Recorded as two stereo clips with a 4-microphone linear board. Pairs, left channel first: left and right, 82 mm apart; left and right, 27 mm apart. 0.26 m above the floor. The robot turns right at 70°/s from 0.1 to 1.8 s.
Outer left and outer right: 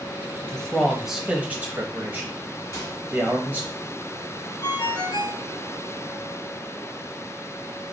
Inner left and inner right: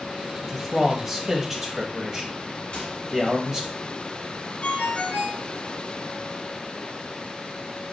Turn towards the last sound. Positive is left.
turn(degrees=50)  # may be behind; listen again after turning